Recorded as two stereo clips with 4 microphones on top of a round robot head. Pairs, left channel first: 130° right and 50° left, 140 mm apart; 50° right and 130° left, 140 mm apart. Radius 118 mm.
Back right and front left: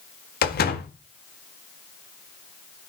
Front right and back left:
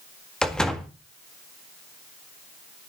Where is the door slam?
135° right, 1.8 m.